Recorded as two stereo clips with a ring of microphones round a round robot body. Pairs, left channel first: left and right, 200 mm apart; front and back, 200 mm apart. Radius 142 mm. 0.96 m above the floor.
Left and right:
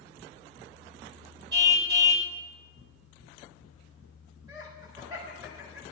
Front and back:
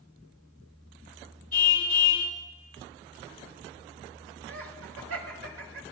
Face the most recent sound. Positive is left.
turn(degrees=-170)